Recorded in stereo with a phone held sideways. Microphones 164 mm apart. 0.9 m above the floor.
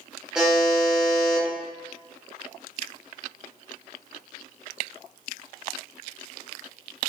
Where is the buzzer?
5° right (ahead or behind), 0.8 m.